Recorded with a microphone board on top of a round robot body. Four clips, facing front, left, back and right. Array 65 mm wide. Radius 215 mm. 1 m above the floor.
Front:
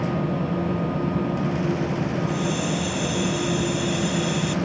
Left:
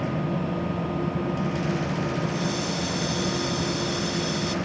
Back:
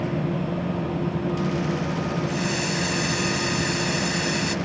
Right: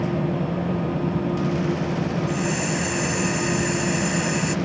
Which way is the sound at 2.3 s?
130° right.